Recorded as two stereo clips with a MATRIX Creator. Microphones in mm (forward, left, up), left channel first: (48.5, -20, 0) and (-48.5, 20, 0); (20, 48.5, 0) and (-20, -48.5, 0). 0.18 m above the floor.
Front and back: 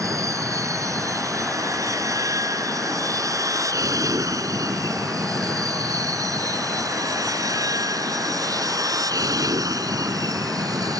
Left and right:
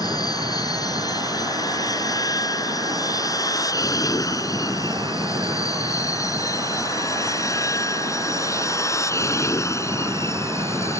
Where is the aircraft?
105° left; by 11.0 s 120° left.